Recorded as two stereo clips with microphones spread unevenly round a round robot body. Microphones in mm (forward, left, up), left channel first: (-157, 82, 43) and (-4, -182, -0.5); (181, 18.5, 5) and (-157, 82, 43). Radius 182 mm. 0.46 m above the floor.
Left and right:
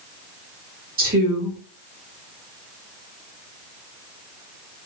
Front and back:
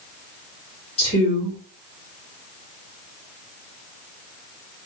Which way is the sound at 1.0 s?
60° right.